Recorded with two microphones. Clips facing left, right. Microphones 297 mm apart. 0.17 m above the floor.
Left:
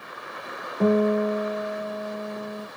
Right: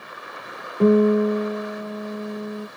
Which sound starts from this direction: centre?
A guitar, at 0.8 s.